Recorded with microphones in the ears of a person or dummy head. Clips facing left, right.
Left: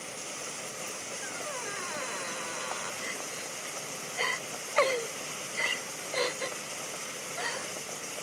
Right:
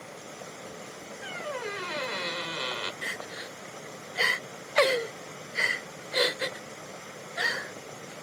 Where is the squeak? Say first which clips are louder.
Right 6 dB; 40° right (ahead or behind).